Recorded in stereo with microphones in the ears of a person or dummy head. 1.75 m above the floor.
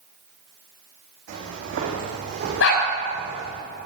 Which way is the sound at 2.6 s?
75° left (ahead or behind).